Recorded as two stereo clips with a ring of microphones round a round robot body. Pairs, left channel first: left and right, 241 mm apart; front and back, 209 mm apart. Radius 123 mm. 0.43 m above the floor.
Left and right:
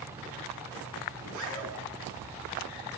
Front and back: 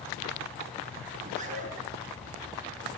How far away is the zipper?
About 5.5 m.